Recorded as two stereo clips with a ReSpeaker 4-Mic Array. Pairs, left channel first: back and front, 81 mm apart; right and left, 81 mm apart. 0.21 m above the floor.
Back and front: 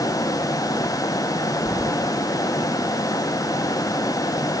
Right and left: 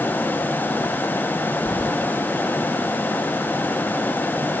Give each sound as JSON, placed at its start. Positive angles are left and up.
{"t": 1.6, "sound": "keys jangling", "azimuth_deg": -60, "distance_m": 5.0}